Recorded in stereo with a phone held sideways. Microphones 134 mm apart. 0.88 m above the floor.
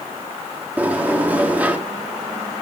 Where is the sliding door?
10° right (ahead or behind), 1.6 m.